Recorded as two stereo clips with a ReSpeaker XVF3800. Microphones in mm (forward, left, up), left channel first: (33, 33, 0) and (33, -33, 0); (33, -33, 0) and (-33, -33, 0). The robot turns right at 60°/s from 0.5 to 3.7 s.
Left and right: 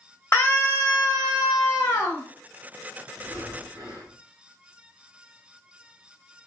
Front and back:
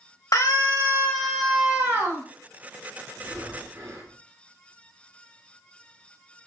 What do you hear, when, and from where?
0.3 s a scream: 35° left, 1.2 m; by 2.2 s 140° left, 1.2 m
3.2 s breathing: 160° right, 1.3 m; by 4.2 s 130° right, 1.3 m